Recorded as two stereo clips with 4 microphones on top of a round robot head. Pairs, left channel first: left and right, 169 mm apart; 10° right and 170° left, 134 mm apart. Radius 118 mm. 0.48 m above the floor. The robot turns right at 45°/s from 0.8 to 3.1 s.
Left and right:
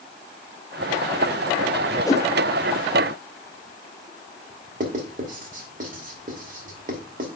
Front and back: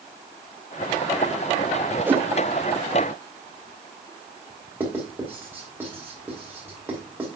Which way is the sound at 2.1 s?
120° left.